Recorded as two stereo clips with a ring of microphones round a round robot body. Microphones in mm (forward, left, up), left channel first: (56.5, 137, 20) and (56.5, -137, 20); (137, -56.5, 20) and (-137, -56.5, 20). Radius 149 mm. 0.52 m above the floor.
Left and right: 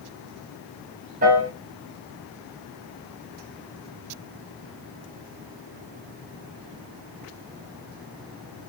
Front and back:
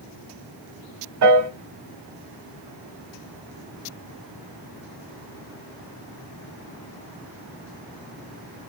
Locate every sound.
1.2 s a piano: 155° right, 2.5 m